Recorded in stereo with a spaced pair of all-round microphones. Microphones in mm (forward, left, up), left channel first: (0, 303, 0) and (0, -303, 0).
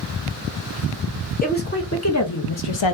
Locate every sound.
1.4 s a woman speaking: 15° left (ahead or behind), 1.1 m; by 3.0 s 55° left (ahead or behind), 0.6 m